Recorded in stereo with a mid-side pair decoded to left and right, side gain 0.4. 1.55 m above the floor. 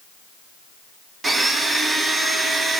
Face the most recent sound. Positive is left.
turn(degrees=-40)